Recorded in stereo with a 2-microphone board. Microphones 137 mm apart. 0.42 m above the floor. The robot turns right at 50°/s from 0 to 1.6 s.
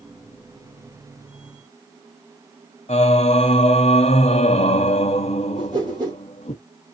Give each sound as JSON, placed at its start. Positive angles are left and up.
{"t": 2.9, "sound": "singing", "side_deg": 55, "distance_m": 0.6}
{"t": 5.5, "sound": "a whoosh", "side_deg": -35, "distance_m": 3.5}